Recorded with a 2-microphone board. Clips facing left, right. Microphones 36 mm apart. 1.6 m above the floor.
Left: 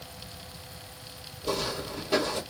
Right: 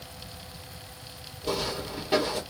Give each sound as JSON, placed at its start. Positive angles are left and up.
{"t": 1.4, "sound": "footsteps", "side_deg": -30, "distance_m": 1.8}